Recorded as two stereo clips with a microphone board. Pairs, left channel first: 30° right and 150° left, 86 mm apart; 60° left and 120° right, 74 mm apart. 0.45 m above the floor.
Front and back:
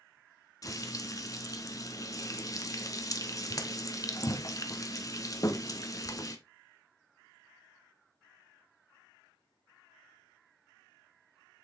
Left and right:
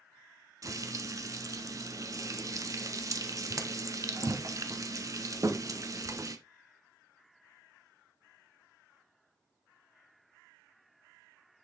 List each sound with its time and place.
0.6 s frying: 80° right, 1.0 m